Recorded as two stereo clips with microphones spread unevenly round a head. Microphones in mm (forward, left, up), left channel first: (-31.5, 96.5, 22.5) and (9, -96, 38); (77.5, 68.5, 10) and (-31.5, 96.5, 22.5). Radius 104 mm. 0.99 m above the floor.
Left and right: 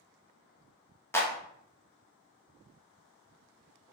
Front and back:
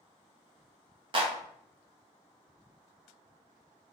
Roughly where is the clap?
Behind.